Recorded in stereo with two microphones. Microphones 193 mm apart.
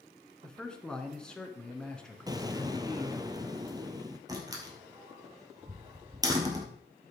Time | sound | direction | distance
0.4 | a man speaking | 5° left (ahead or behind) | 1.3 m
2.3 | an explosion | 20° right (ahead or behind) | 0.8 m
4.3 | a door slam | 20° right (ahead or behind) | 2 m